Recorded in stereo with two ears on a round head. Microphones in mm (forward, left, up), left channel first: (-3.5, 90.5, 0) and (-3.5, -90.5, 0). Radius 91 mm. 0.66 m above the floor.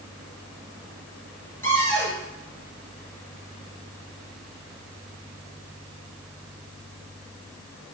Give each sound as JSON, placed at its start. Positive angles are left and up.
{"t": 1.6, "sound": "a cupboard door", "side_deg": 10, "distance_m": 3.5}